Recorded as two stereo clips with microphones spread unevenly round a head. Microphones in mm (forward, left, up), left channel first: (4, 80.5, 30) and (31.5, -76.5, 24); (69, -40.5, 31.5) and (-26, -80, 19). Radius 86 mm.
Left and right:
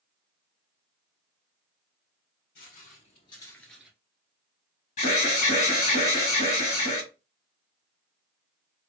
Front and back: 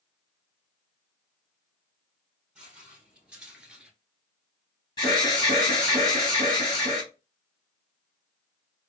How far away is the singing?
No singing in this recording.